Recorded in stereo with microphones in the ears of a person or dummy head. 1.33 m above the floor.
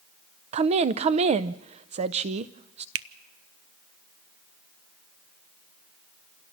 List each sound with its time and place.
0.5 s a woman speaking: 40° right (ahead or behind), 0.5 m
3.0 s a finger snap: 70° right (ahead or behind), 0.7 m